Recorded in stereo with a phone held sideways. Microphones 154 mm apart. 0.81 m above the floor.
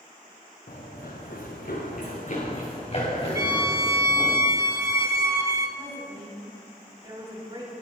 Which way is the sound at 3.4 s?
20° right (ahead or behind).